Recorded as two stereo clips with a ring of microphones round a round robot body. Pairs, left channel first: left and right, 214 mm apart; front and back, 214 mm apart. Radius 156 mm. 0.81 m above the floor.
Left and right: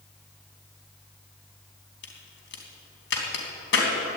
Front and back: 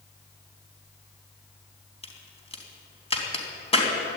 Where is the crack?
60° left, 3 m.